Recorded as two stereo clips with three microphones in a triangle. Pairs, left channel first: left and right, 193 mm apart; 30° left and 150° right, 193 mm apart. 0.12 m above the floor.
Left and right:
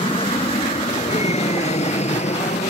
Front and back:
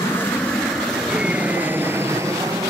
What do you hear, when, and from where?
0.0 s an aircraft: 90° left; by 2.7 s 140° left